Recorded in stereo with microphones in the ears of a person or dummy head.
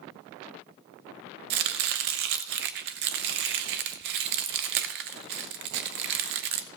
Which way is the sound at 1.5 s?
45° right (ahead or behind).